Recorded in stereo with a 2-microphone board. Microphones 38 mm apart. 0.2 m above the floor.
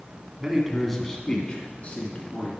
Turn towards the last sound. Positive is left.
turn(degrees=50)  # may be behind; listen again after turning